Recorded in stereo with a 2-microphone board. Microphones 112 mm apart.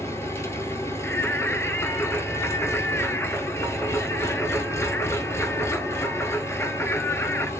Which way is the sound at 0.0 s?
25° left (ahead or behind).